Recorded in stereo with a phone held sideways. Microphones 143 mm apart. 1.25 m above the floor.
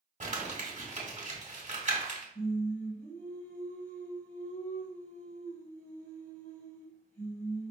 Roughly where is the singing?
Left.